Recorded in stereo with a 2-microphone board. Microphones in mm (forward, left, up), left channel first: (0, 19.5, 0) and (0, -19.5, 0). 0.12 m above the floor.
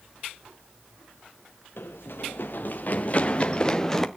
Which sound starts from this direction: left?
Running footsteps, at 1.8 s.